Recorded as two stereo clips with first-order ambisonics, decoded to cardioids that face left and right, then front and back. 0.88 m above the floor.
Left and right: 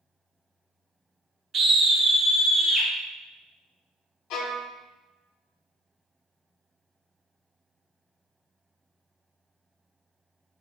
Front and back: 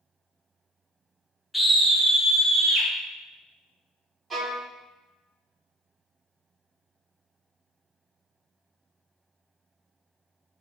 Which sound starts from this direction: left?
A violin, at 4.3 s.